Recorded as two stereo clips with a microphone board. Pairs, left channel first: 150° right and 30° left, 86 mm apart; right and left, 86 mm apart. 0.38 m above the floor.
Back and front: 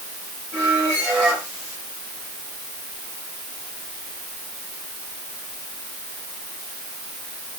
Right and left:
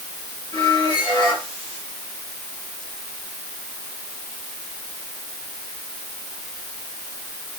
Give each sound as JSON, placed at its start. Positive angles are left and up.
{"t": 0.5, "sound": "a squeak", "azimuth_deg": -50, "distance_m": 9.0}